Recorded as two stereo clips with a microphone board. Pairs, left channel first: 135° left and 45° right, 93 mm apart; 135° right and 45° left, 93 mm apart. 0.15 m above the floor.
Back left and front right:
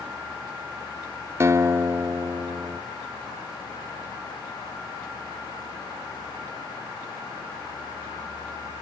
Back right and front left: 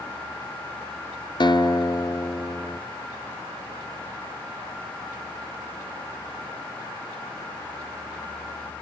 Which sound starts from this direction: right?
A guitar, at 1.4 s.